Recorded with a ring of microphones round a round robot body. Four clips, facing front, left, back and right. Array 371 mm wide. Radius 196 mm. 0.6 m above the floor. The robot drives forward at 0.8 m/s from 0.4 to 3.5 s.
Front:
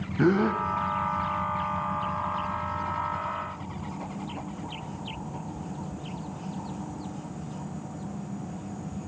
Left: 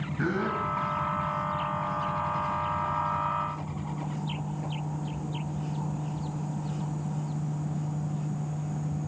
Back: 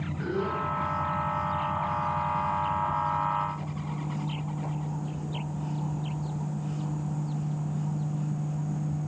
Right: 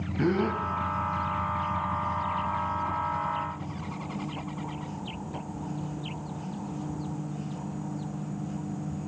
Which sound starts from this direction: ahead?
A gasp, at 0.2 s.